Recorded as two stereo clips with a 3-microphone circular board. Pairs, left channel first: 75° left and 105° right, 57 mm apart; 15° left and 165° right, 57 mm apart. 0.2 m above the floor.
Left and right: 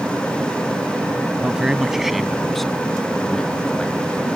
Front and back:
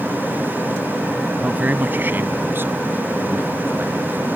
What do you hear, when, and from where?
1.4 s a man speaking: 155° right; by 4.4 s 150° left